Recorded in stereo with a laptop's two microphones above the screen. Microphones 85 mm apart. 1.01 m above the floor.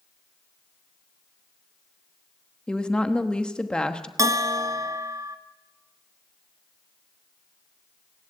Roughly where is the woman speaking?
Centre.